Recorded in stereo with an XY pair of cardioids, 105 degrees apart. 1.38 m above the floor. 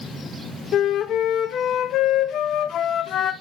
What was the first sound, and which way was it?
A flute, 60° left.